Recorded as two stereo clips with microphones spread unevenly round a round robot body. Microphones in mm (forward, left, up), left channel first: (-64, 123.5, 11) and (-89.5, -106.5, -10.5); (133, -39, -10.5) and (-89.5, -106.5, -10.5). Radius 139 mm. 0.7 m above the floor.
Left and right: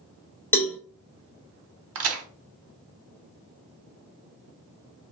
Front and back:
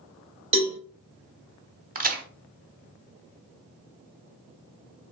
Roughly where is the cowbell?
Behind.